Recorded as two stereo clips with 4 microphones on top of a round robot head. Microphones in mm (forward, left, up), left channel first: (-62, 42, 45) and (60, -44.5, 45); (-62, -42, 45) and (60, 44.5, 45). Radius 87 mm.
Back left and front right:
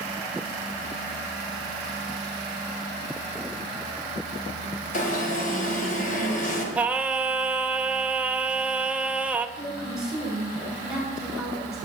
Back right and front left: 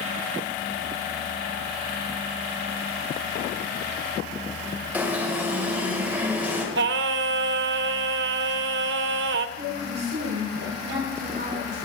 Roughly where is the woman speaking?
Ahead left.